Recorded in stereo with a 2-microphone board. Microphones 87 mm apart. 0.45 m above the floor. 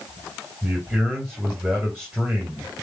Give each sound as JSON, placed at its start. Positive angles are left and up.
{"t": 0.6, "sound": "a man speaking", "side_deg": -5, "distance_m": 1.7}